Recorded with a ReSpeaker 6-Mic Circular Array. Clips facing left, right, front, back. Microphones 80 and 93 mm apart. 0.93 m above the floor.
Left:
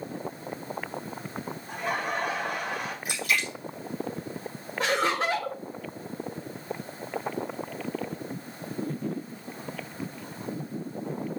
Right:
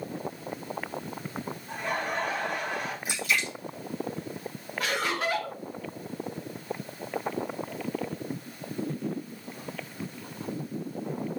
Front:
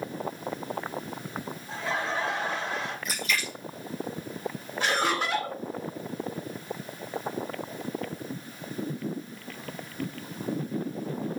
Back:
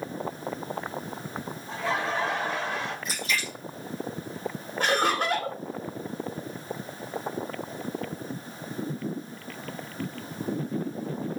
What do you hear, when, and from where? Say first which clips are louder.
1.7 s laughter: left 1 dB, back 2 dB; 165° left, 3.5 m
3.0 s a splash: left 1 dB, even; 130° left, 3.5 m
4.8 s laughter: left 4 dB, back 2 dB; 145° left, 1.4 m